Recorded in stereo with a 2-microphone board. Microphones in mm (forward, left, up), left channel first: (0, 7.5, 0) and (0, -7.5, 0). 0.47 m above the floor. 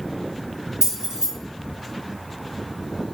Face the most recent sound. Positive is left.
turn(degrees=-45)  # may be behind; listen again after turning